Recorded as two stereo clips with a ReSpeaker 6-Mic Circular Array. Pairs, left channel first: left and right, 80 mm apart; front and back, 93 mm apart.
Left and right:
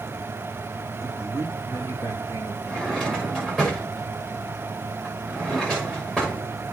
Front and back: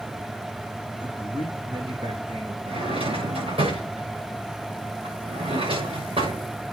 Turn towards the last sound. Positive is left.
turn(degrees=170)